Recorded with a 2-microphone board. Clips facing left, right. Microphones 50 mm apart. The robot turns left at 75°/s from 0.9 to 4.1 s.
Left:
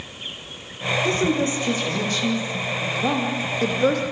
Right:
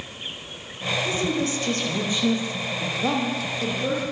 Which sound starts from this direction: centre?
A woman speaking, at 3.0 s.